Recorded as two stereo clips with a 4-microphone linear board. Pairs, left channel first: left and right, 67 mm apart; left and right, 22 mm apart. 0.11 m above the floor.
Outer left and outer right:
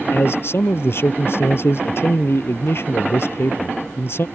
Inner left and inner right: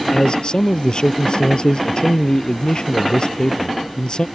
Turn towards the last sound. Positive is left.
turn(degrees=40)  # may be behind; listen again after turning